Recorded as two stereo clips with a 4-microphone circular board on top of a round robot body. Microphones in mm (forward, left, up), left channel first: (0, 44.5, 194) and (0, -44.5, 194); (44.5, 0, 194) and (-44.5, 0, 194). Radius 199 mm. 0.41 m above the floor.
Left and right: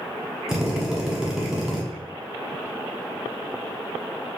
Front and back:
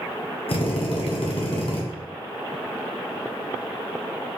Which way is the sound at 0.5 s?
5° right.